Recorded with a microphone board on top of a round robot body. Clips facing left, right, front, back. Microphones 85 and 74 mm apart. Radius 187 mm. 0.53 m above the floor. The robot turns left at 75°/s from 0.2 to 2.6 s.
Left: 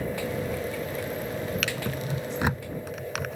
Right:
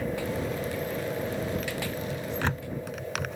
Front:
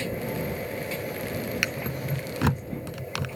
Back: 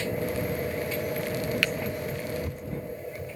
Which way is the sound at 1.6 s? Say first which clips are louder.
Left 1 dB, back 1 dB; 75° left.